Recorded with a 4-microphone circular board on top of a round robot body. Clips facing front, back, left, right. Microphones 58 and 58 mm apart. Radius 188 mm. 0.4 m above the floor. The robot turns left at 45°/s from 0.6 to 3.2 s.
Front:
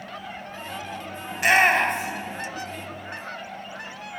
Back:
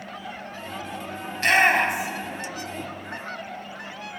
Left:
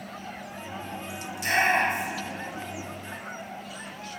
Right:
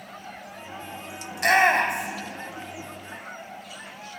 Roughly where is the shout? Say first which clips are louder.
Front 1 dB, right 4 dB; right.